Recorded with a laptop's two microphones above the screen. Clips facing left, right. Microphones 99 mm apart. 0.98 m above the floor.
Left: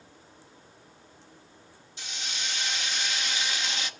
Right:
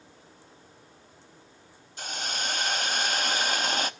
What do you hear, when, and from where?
2.0 s a hiss: 50° right (ahead or behind), 0.8 m